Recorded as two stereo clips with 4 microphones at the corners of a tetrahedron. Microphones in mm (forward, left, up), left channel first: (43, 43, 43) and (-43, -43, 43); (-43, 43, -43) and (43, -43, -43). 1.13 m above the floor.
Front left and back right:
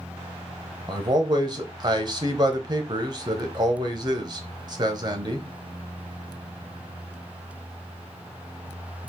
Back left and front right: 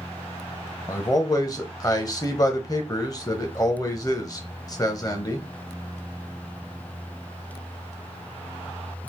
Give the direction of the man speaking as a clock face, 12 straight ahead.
6 o'clock.